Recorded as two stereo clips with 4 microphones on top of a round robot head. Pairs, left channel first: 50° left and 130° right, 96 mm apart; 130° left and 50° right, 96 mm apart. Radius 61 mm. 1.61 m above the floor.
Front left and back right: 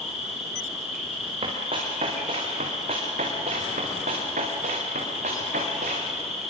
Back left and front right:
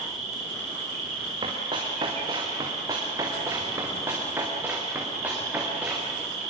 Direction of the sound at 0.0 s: 40° right.